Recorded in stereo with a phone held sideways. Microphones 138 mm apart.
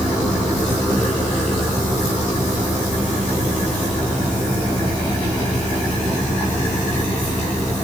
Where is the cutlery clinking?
I don't hear cutlery clinking.